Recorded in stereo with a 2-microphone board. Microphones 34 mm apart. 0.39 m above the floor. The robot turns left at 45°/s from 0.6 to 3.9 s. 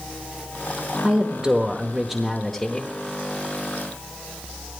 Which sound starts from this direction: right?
A woman speaking, at 1.0 s.